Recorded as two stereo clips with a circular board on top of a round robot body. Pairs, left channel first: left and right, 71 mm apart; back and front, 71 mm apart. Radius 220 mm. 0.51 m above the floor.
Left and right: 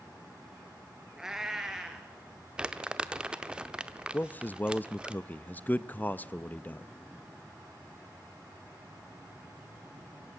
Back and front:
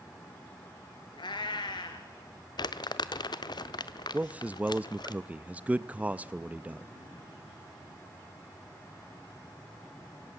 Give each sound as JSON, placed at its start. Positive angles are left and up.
{"t": 1.2, "sound": "a cat meowing", "azimuth_deg": -170, "distance_m": 0.8}
{"t": 2.6, "sound": "crumpling", "azimuth_deg": -165, "distance_m": 0.8}
{"t": 4.1, "sound": "a man speaking", "azimuth_deg": 50, "distance_m": 0.7}